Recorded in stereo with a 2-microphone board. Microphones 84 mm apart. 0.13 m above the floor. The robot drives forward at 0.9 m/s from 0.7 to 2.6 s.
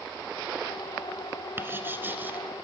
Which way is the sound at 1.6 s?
25° right (ahead or behind).